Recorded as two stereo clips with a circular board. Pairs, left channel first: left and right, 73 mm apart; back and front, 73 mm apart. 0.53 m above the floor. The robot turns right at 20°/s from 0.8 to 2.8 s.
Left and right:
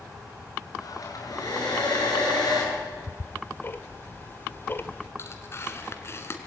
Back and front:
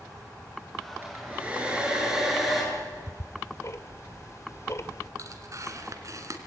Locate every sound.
1.0 s a hair dryer: 60° left, 8.5 m; by 2.6 s 90° left, 8.5 m
2.7 s ticking: 145° left, 1.4 m
5.2 s tearing paper: 40° left, 2.5 m